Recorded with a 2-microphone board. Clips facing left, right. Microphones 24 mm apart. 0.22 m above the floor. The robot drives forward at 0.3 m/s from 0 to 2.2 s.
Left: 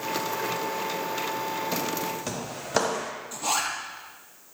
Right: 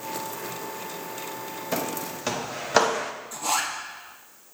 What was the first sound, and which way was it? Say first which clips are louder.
Footsteps: left 1 dB; 30° right (ahead or behind).